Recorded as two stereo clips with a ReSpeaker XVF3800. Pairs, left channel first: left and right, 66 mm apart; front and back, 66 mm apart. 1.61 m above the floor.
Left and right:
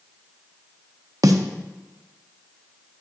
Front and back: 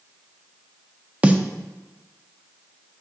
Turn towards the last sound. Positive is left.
turn(degrees=-110)